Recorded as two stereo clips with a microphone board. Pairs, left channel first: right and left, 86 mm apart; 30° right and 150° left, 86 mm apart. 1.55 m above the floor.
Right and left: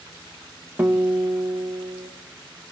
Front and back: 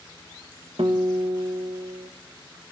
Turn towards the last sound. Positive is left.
turn(degrees=160)